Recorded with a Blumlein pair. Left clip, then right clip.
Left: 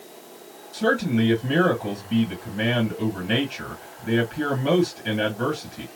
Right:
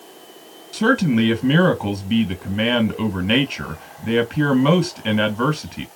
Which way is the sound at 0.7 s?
30° right.